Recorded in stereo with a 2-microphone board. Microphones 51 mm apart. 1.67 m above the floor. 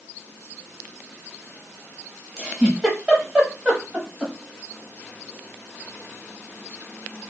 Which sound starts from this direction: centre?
A giggle, at 2.4 s.